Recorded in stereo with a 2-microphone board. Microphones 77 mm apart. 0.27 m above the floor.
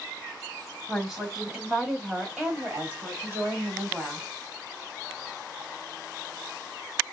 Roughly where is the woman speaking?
Centre.